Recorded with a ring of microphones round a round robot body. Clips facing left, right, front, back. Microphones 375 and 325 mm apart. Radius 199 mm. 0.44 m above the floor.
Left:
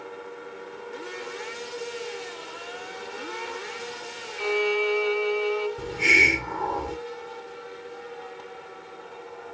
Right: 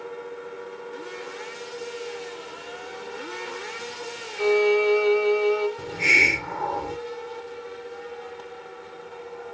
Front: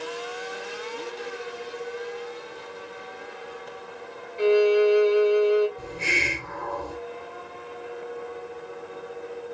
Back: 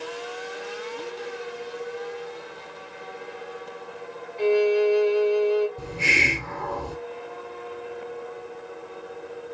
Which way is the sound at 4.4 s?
75° right.